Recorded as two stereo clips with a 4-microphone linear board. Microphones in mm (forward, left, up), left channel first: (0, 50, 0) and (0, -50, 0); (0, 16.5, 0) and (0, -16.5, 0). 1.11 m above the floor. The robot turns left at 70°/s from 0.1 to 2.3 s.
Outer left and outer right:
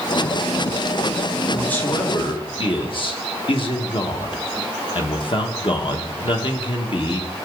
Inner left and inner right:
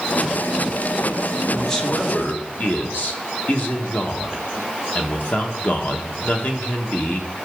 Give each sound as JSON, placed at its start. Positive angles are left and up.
{"t": 1.5, "sound": "a man speaking", "azimuth_deg": 175, "distance_m": 1.3}